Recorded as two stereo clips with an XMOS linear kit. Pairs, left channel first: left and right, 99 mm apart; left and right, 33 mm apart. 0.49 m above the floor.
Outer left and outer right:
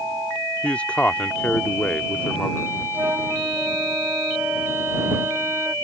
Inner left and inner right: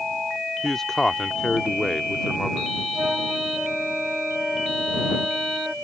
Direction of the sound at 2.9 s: 20° right (ahead or behind).